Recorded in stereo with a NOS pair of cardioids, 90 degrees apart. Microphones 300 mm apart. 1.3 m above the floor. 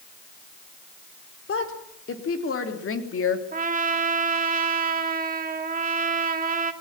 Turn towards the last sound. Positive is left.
turn(degrees=-30)